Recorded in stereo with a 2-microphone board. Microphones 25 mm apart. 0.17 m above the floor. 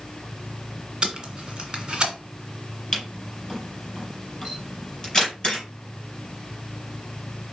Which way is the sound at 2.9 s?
25° left (ahead or behind).